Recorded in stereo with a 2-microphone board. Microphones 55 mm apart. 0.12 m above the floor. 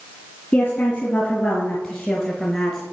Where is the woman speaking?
35° left (ahead or behind), 2 m; by 2.8 s 10° left (ahead or behind), 1.5 m.